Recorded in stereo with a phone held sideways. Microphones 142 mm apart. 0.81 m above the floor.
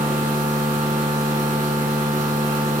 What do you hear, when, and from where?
0.0 s a machine running: 55° right (ahead or behind), 0.8 m